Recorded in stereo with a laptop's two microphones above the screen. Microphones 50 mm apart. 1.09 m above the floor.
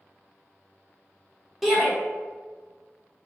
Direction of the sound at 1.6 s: 5° right (ahead or behind).